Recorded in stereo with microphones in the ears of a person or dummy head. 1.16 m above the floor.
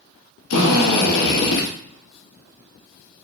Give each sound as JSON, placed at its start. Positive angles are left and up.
{"t": 0.5, "sound": "a drill", "side_deg": 80, "distance_m": 1.3}